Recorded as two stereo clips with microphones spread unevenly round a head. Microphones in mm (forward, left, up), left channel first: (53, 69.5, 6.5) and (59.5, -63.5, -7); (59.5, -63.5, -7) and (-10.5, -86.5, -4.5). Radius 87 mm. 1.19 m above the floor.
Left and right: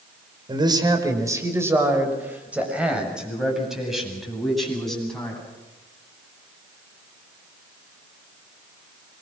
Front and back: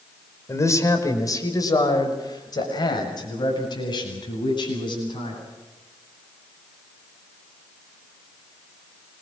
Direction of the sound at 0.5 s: 30° right.